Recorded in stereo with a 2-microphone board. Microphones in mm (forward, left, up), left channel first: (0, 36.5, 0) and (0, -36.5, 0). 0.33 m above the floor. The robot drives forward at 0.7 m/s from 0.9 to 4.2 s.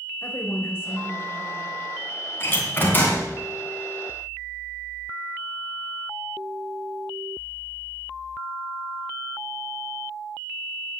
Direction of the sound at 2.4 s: 35° left (ahead or behind).